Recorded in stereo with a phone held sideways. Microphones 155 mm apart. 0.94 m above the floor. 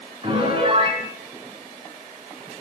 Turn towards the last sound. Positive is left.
turn(degrees=-35)  # may be behind; listen again after turning